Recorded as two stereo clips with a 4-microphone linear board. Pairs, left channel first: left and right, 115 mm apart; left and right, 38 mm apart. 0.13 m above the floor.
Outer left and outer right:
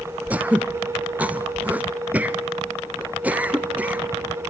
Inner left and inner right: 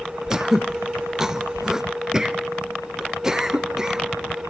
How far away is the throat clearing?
About 1.1 m.